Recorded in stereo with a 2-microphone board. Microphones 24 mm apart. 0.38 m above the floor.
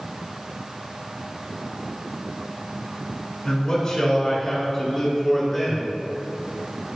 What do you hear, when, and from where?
3.5 s a man speaking: 35° left (ahead or behind), 4 m; by 6.0 s centre (ahead or behind), 4.5 m